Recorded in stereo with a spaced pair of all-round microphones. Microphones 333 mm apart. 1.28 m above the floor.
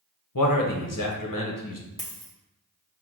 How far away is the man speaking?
About 0.8 m.